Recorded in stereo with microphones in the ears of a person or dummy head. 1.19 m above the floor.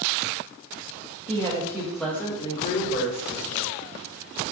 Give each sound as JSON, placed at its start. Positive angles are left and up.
{"t": 1.3, "sound": "a woman speaking", "side_deg": -30, "distance_m": 0.9}